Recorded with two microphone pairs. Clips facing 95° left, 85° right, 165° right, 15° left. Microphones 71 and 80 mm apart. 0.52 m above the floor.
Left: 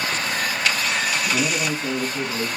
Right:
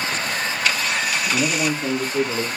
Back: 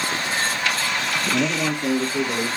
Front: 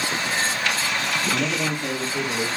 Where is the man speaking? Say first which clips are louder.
Right 2 dB, back 2 dB; 115° right, 0.6 m; by 2.5 s 85° right, 1.1 m.